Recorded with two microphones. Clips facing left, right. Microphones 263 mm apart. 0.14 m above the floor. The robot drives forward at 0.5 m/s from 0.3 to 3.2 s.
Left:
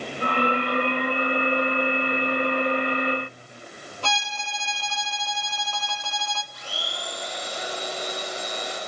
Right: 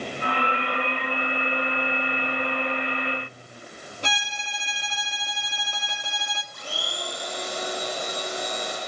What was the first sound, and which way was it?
A violin, 20° right (ahead or behind).